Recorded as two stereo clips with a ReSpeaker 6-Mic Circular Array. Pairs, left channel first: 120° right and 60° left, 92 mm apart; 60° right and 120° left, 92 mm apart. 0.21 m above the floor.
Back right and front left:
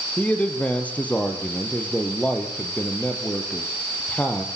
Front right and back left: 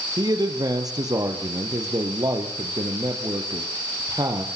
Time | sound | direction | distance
0.2 | a man speaking | 165° left | 4.5 m